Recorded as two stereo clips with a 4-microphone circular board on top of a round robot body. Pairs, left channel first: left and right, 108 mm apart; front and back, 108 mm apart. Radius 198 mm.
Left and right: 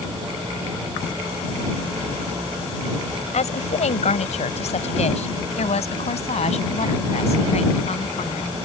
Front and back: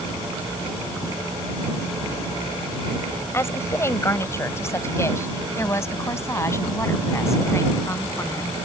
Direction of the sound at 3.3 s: 70° left.